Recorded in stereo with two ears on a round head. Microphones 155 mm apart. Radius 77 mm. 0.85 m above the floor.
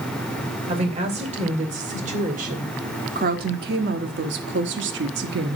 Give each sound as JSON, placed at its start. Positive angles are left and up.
{"t": 0.7, "sound": "a woman speaking", "side_deg": -35, "distance_m": 2.5}